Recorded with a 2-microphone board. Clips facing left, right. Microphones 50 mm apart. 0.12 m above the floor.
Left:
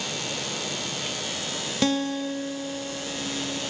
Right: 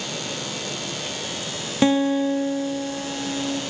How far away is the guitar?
About 0.5 m.